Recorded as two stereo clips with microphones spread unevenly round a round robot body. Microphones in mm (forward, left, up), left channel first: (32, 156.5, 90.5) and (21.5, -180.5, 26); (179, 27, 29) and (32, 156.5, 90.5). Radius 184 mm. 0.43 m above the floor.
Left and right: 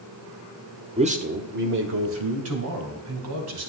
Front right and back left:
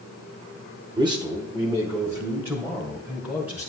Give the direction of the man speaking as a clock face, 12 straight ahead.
5 o'clock.